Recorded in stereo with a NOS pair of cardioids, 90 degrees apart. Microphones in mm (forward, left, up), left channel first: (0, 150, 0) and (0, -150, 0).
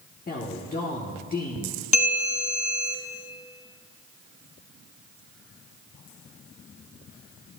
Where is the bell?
25° left, 0.9 m.